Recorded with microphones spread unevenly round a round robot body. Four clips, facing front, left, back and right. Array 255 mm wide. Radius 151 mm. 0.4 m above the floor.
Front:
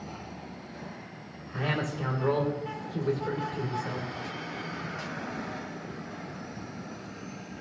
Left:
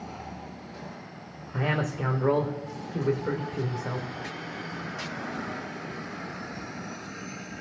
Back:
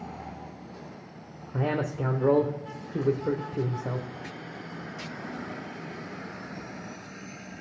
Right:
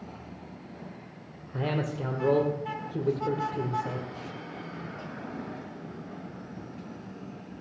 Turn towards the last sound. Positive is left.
turn(degrees=-165)